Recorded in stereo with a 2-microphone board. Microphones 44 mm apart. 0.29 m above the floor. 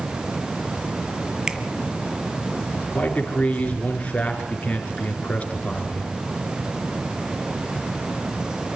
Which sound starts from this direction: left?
A man speaking, at 2.9 s.